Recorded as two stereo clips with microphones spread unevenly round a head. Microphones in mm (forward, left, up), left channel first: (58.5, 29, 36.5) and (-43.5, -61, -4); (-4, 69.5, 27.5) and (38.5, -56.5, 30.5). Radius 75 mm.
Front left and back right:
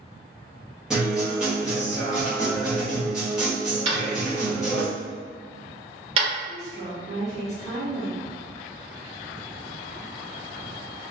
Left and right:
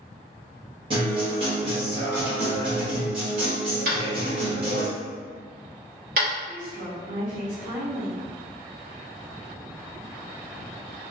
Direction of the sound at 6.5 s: 115° right.